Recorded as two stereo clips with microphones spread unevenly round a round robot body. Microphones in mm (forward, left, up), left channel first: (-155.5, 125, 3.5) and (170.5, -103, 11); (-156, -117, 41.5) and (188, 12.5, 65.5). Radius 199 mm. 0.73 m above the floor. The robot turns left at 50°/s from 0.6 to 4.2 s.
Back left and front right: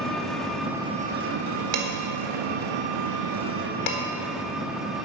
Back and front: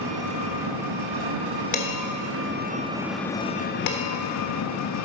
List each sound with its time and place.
0.0 s an engine running: 55° left, 1.0 m; by 5.0 s 125° right, 1.0 m
1.7 s dishes clattering: 90° right, 1.5 m; by 4.0 s 155° left, 1.5 m